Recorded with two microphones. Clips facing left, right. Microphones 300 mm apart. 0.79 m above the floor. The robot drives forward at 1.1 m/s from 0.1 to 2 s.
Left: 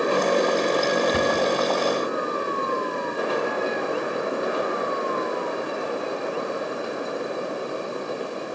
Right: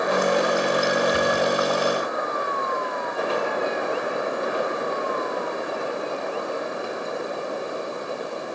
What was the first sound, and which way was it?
A cupboard door, 60° left (ahead or behind).